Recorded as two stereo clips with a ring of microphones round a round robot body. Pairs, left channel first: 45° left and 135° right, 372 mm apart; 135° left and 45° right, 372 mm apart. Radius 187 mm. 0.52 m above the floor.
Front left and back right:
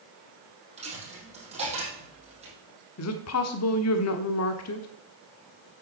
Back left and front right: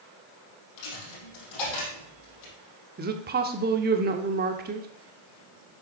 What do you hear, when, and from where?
0.8 s a dropped coin: 150° left, 4 m
3.0 s a woman speaking: 10° left, 1.1 m